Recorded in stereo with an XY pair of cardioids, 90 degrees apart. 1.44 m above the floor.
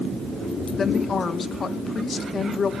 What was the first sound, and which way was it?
A woman speaking, 45° left.